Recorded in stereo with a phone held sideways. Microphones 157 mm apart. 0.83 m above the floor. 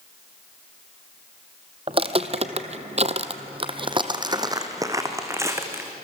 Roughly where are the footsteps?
Right.